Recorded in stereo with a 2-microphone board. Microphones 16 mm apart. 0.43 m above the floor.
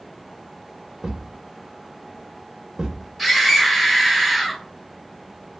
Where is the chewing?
I don't hear chewing.